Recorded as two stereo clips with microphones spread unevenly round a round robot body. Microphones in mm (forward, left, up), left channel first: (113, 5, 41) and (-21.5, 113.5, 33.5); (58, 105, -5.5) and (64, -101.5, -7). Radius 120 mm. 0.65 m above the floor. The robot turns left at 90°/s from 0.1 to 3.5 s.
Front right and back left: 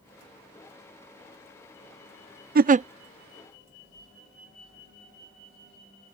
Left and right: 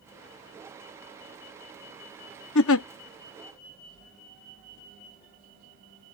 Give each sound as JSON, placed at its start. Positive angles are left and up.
{"t": 2.5, "sound": "a giggle", "azimuth_deg": 115}